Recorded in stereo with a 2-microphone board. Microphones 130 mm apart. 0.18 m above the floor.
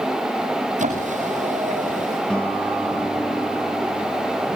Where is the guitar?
10° left (ahead or behind), 4.5 m.